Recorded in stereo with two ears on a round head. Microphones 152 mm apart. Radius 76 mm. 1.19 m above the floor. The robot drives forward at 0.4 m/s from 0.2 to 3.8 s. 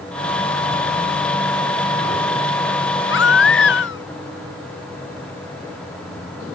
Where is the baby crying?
85° left; by 4.0 s 80° left.